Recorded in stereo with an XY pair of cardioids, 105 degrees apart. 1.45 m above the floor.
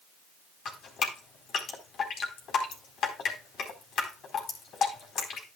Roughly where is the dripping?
Ahead left.